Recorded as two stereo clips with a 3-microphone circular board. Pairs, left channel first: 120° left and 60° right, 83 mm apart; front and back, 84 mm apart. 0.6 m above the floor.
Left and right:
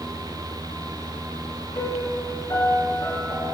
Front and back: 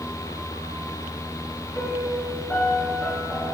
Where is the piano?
75° left, 9 m.